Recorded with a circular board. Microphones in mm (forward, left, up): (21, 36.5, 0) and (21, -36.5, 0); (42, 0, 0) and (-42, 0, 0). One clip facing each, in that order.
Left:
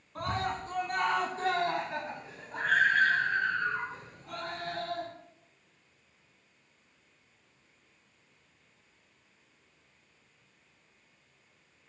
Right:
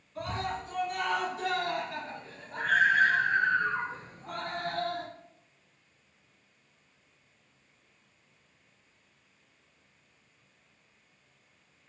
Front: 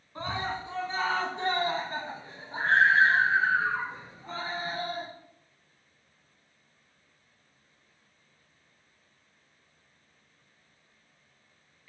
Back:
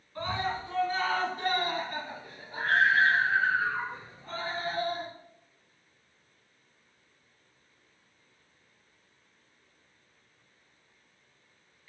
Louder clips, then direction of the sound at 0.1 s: Left 1 dB, back 1 dB; 70° left.